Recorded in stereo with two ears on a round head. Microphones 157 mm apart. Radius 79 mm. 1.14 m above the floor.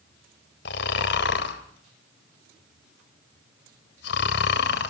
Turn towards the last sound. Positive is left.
turn(degrees=65)  # may be behind; listen again after turning